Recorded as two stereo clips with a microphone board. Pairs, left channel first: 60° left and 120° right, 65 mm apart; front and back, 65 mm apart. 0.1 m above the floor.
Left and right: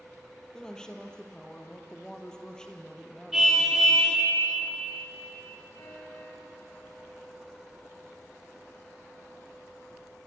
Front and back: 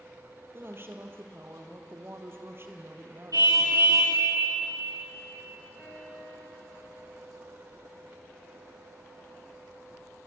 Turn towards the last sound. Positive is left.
turn(degrees=75)